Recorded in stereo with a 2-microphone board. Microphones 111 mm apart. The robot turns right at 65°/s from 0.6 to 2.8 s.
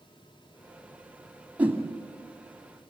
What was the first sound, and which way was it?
A whoosh, 15° right (ahead or behind).